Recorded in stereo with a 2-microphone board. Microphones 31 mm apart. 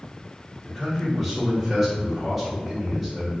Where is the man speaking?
5° right (ahead or behind), 1.6 m.